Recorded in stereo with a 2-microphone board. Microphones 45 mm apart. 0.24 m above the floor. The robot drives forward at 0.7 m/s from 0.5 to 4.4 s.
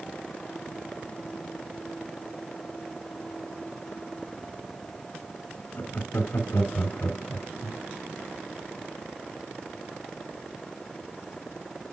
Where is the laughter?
40° left (ahead or behind), 1.9 m.